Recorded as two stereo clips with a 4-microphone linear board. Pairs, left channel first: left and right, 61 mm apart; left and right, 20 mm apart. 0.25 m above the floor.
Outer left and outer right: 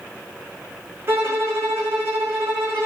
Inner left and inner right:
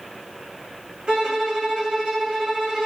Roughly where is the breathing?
I don't hear breathing.